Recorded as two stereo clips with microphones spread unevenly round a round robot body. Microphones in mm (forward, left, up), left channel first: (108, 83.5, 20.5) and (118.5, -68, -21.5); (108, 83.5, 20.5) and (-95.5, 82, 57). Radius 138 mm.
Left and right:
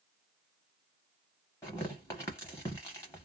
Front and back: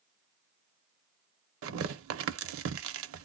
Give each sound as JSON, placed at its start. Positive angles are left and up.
{"t": 1.6, "sound": "tearing paper", "azimuth_deg": 170, "distance_m": 0.5}